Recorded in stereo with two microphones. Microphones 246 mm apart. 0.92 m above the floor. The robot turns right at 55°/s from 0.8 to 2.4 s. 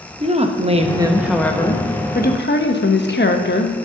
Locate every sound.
0.2 s a woman speaking: 30° right, 0.9 m; by 3.8 s 60° left, 0.9 m